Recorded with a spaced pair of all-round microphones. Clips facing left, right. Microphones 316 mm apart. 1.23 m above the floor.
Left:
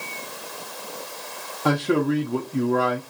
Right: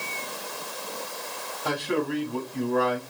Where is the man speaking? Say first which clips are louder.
Left 7 dB; 70° left (ahead or behind), 0.6 m.